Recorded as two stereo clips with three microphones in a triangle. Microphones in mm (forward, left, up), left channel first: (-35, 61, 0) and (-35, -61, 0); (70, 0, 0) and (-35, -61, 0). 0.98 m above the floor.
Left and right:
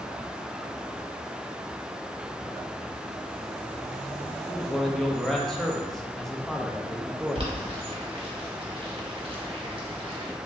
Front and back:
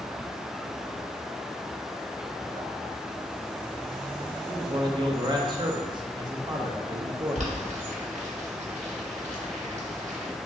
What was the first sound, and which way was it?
A man speaking, 175° left.